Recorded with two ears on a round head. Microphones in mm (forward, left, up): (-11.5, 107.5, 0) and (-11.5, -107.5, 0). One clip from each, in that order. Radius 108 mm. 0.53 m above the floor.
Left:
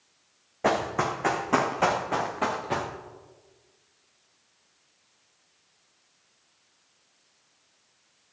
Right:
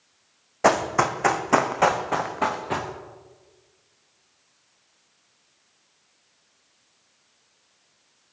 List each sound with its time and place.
0.6 s running footsteps: 50° right (ahead or behind), 1.5 m; by 2.9 s 5° right (ahead or behind), 2.5 m